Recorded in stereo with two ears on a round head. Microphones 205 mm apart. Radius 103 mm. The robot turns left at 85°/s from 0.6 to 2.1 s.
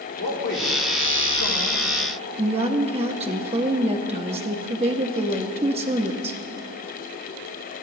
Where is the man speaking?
40° left (ahead or behind), 2.5 m; by 1.8 s 30° left (ahead or behind), 2.5 m.